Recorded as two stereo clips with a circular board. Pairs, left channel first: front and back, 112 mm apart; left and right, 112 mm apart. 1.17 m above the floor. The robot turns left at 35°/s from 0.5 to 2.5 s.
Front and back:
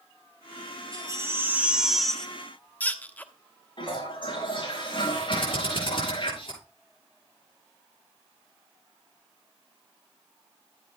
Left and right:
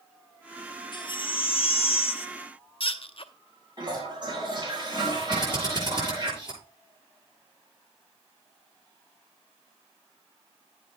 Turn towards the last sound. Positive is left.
turn(degrees=-45)